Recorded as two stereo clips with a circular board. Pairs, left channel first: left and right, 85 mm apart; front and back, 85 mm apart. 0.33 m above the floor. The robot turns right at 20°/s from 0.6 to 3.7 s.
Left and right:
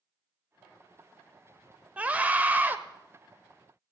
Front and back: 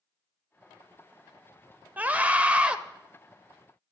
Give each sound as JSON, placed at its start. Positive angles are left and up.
{"t": 2.0, "sound": "a scream", "azimuth_deg": -140, "distance_m": 0.9}